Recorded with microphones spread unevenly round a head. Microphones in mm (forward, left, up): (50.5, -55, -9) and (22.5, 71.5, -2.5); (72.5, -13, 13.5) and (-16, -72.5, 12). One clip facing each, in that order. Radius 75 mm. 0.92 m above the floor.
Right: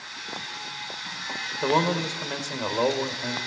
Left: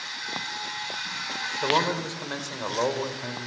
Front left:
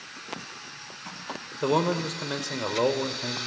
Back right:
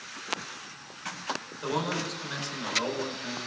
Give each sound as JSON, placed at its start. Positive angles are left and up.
{"t": 1.6, "sound": "a man speaking", "azimuth_deg": 0, "distance_m": 3.0}